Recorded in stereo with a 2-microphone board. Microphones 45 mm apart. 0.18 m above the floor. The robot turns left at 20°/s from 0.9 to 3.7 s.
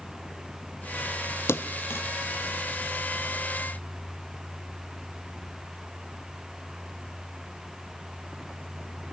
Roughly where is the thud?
Left.